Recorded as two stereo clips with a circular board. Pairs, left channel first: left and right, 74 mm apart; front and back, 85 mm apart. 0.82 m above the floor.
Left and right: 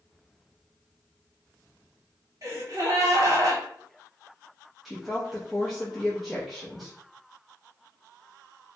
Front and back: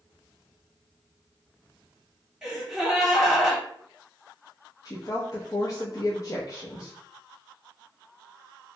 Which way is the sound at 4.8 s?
Straight ahead.